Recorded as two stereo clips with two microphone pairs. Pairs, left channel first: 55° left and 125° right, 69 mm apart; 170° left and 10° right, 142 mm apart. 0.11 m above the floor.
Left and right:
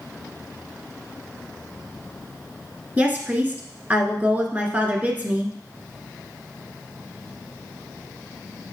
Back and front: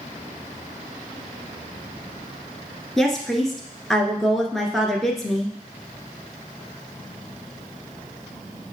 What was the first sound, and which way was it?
A woman speaking, 105° right.